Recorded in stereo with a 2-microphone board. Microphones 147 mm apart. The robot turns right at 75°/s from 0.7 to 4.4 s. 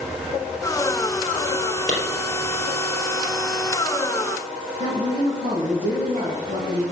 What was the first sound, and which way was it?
A clap, 65° left (ahead or behind).